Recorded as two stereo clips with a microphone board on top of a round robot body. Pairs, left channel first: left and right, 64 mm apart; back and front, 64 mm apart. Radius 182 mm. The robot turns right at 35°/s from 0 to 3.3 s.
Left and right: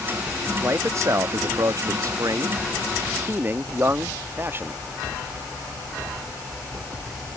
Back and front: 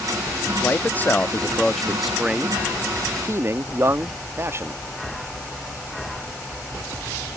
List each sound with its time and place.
0.6 s a man speaking: 135° right; by 4.8 s 40° right